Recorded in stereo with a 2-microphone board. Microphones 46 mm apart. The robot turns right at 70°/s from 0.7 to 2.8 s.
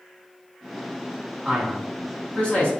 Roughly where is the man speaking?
Ahead right.